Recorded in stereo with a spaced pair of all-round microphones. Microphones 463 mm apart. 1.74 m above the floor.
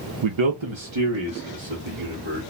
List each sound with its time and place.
0.2 s a man speaking: 75° right (ahead or behind), 0.5 m